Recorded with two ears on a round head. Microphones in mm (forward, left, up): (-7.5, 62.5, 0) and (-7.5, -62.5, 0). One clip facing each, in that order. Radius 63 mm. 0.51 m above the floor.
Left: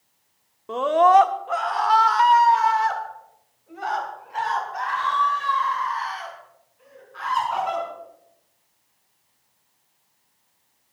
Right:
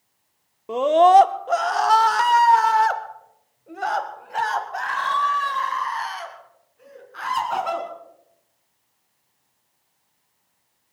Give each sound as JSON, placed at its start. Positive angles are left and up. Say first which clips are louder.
{"t": 0.7, "sound": "a scream", "louder": "right 2 dB", "side_deg": -15, "distance_m": 0.8}